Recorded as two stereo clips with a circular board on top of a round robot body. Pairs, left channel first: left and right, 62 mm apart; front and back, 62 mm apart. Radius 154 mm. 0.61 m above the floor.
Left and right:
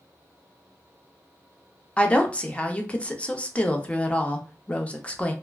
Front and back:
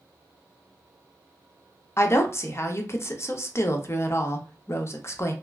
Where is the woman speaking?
25° left, 0.8 m.